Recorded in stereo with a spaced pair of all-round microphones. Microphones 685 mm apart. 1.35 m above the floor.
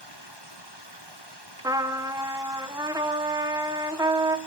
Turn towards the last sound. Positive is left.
turn(degrees=-5)  # may be behind; listen again after turning